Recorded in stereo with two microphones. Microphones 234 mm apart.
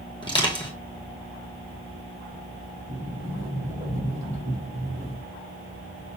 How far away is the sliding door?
About 3 m.